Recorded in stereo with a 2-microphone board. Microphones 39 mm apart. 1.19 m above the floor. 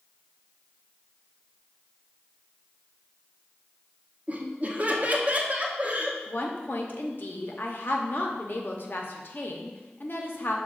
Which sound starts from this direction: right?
Laughter, at 4.3 s.